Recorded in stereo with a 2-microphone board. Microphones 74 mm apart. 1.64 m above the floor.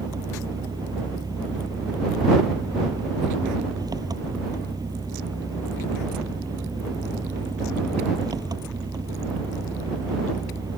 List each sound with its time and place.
0.0 s an engine running: 65° right (ahead or behind)